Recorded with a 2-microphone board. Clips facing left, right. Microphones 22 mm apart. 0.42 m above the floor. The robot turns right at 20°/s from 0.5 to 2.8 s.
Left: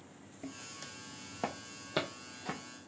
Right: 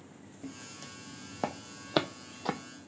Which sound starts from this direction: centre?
Footsteps, at 0.4 s.